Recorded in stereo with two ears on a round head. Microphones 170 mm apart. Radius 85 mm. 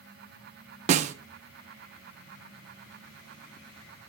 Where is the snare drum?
40° right (ahead or behind), 0.7 m.